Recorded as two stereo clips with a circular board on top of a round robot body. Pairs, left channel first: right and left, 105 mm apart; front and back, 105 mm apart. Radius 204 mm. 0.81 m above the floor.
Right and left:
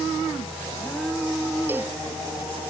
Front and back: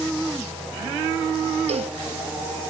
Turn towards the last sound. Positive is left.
turn(degrees=160)